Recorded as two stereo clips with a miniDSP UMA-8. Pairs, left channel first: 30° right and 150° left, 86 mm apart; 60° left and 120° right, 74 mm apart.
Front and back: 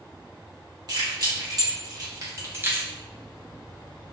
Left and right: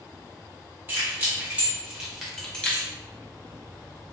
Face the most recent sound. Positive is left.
turn(degrees=100)